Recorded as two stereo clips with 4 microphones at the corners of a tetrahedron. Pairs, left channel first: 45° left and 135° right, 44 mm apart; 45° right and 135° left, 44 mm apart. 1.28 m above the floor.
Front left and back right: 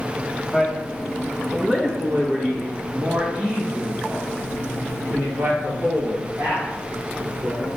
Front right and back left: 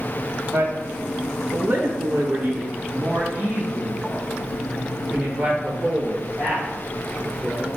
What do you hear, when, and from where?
0.5 s a man speaking: 145° left, 1.6 m; by 7.7 s 150° right, 4 m